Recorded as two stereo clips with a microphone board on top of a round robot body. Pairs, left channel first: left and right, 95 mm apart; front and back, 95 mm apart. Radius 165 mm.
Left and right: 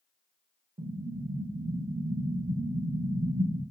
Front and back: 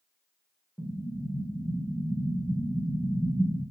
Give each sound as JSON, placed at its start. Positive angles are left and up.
{"t": 0.8, "sound": "an explosion", "azimuth_deg": -75, "distance_m": 1.9}